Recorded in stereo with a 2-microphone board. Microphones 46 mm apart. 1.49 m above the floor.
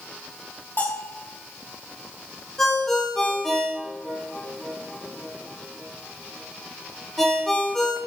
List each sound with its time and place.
0.8 s a bell: 45° left (ahead or behind), 5.5 m
2.6 s a ringtone: 5° left (ahead or behind), 3.5 m